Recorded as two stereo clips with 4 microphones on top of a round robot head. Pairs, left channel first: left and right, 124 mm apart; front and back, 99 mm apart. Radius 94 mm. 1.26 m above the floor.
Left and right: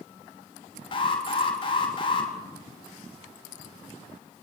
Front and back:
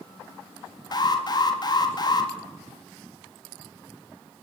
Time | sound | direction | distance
0.9 | an alarm | 40° left | 4 m